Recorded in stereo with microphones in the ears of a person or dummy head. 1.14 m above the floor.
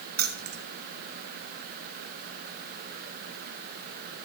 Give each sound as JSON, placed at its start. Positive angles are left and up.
{"t": 0.2, "sound": "keys jangling", "side_deg": -45, "distance_m": 1.1}